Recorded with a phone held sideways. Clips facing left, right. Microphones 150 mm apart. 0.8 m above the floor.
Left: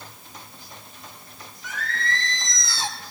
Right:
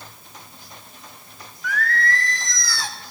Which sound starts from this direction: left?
Singing, at 1.6 s.